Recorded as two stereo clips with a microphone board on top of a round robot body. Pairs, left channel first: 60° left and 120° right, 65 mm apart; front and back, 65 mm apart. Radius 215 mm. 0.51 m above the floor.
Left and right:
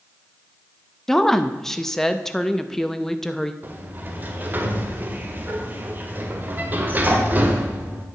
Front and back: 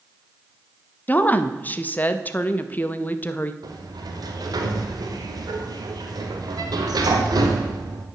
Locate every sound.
1.1 s a woman speaking: 15° right, 0.9 m
3.6 s a sliding door: straight behind, 1.1 m